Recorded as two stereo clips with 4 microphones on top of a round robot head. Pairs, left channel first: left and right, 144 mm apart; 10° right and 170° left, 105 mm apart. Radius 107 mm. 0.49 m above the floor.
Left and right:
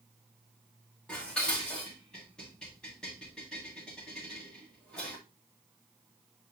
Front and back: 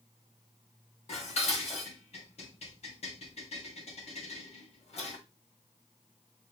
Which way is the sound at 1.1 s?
5° left.